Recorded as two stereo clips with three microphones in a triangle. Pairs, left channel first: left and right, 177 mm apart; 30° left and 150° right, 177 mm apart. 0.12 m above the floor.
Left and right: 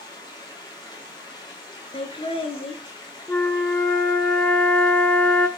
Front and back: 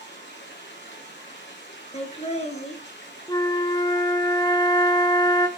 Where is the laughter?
55° left, 1.8 m.